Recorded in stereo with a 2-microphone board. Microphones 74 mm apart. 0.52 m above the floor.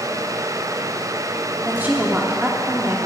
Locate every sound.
1.6 s a woman speaking: 25° right (ahead or behind), 0.8 m